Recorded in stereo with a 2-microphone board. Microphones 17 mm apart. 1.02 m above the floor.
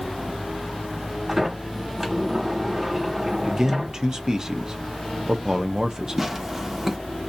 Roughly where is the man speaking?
Right.